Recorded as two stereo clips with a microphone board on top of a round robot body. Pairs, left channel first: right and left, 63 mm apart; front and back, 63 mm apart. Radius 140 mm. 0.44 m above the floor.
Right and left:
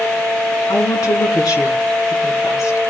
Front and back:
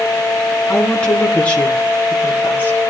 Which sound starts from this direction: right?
A woman speaking, at 0.7 s.